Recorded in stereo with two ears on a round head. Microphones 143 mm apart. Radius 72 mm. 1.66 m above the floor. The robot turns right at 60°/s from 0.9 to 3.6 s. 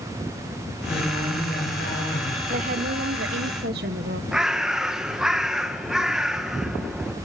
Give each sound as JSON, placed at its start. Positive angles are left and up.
{"t": 0.9, "sound": "a woman speaking", "azimuth_deg": 20, "distance_m": 8.5}
{"t": 2.5, "sound": "a woman speaking", "azimuth_deg": -130, "distance_m": 1.6}
{"t": 4.3, "sound": "a bird", "side_deg": -5, "distance_m": 1.2}